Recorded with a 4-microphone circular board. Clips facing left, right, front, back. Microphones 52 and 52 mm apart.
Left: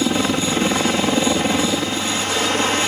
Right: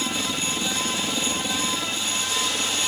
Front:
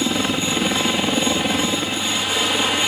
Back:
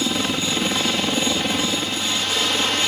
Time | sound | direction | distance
0.0 | a helicopter | 75° left | ?